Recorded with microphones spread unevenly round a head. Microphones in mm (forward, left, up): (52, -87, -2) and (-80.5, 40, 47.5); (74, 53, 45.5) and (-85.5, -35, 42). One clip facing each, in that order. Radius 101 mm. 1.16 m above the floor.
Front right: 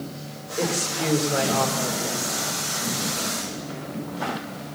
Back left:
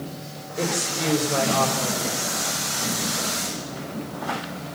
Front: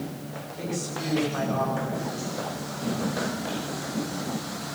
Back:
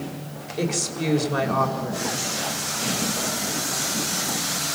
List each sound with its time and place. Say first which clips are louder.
0.6 s a woman speaking: front right 1 dB, back 6 dB; 135° right, 4.5 m